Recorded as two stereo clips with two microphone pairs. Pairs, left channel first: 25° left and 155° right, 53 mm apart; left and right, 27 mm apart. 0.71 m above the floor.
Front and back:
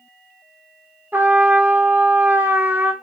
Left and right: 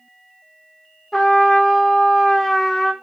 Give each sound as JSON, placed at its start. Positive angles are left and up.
{"t": 1.1, "sound": "a trumpet", "azimuth_deg": 160, "distance_m": 0.5}